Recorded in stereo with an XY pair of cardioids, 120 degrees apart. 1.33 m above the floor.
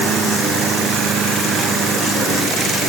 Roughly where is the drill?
No drill in this recording.